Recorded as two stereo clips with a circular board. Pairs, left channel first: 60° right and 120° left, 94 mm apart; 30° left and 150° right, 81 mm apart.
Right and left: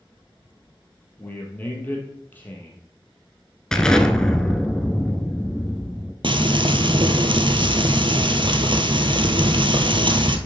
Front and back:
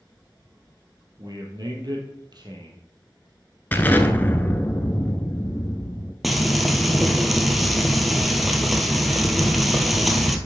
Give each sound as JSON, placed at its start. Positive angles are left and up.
{"t": 1.2, "sound": "a man speaking", "azimuth_deg": -130, "distance_m": 2.5}
{"t": 3.7, "sound": "an explosion", "azimuth_deg": 10, "distance_m": 0.7}
{"t": 6.2, "sound": "frying", "azimuth_deg": 120, "distance_m": 0.8}